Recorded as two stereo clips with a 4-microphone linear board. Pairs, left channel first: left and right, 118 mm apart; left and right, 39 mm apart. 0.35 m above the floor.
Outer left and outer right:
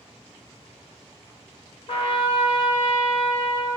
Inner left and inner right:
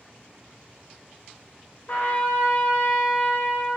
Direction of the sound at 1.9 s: 50° left (ahead or behind).